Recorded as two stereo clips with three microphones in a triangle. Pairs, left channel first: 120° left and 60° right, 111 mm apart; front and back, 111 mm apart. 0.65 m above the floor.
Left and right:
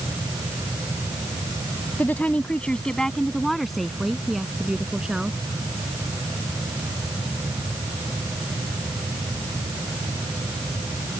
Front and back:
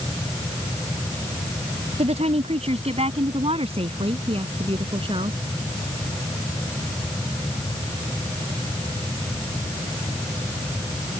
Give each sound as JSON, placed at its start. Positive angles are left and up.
{"t": 2.0, "sound": "a woman speaking", "azimuth_deg": -165}